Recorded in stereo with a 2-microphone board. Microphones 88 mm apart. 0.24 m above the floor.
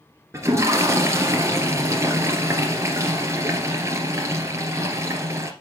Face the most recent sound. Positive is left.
turn(degrees=-35)  # may be behind; listen again after turning